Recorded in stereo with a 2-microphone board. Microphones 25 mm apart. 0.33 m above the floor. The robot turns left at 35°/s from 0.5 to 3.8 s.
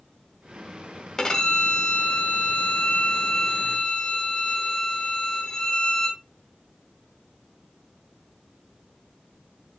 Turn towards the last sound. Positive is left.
turn(degrees=50)